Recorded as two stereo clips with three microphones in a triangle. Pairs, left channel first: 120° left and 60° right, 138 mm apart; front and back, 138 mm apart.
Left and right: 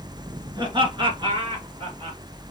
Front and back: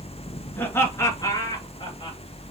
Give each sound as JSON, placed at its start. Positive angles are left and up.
{"t": 0.6, "sound": "laughter", "azimuth_deg": -65, "distance_m": 1.8}